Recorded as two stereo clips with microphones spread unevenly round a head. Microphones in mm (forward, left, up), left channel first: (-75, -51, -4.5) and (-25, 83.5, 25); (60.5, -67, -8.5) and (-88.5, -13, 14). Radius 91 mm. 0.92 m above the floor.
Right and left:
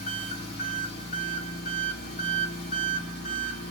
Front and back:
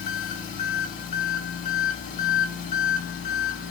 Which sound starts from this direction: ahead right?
An engine running, at 0.0 s.